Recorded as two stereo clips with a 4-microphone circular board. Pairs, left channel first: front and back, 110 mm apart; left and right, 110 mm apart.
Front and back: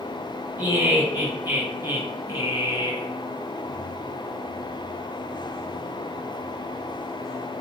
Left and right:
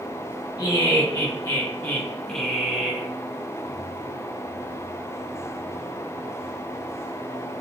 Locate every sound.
0.6 s laughter: 115° left, 2.0 m; by 3.1 s 150° right, 1.5 m